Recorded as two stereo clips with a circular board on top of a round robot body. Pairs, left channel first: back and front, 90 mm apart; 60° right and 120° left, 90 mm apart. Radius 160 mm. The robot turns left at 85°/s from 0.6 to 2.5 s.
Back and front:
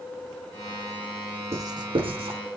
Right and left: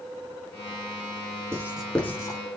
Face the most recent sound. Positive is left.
turn(degrees=-25)